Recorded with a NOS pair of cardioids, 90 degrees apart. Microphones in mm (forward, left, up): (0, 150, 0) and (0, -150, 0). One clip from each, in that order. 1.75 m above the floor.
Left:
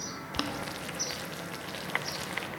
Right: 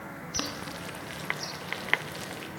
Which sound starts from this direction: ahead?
Boiling, at 0.3 s.